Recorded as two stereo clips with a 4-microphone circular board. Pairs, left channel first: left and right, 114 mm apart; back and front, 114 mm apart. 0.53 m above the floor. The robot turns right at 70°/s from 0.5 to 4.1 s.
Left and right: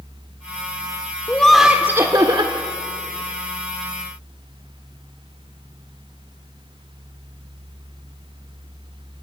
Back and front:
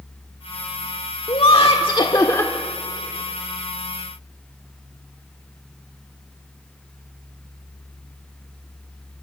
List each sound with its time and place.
1.3 s laughter: 160° left, 1.2 m; by 2.5 s 110° right, 1.2 m